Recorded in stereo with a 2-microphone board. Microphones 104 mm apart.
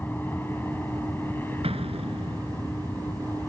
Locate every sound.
0.0 s an aircraft: 20° left (ahead or behind)
1.6 s an explosion: 75° right (ahead or behind)